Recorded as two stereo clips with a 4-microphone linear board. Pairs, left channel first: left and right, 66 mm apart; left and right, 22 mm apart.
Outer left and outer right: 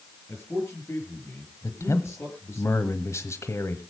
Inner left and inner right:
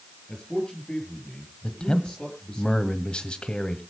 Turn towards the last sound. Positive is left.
turn(degrees=45)  # may be behind; listen again after turning